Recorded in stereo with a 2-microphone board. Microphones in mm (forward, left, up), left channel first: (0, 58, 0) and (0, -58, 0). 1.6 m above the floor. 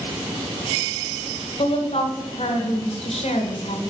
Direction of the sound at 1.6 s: 60° left (ahead or behind).